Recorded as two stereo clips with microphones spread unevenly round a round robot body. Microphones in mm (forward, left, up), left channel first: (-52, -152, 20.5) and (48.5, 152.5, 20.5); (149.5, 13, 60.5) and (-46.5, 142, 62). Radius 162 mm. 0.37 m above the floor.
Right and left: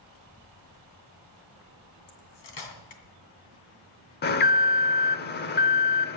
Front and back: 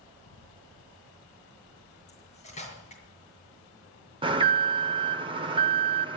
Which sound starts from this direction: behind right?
An alarm, at 4.2 s.